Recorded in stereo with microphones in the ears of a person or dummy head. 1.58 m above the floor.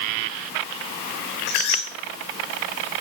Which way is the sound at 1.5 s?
65° left (ahead or behind).